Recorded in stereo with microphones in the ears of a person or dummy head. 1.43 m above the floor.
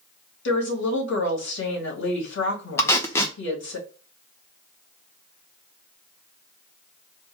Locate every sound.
0.5 s a woman speaking: 75° left (ahead or behind), 2.5 m
2.8 s tape being pulled: 15° left (ahead or behind), 0.5 m